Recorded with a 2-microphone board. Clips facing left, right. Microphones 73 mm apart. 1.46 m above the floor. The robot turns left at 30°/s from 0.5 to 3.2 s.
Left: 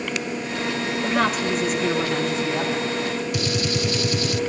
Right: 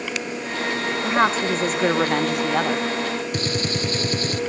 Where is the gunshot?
40° right (ahead or behind), 0.6 m.